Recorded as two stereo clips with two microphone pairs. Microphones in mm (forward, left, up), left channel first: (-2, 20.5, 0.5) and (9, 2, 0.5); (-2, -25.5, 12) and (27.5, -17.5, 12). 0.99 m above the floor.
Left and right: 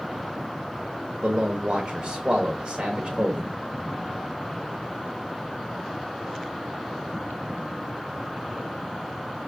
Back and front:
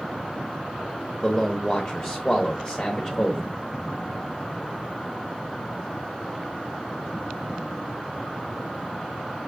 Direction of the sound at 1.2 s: 95° right.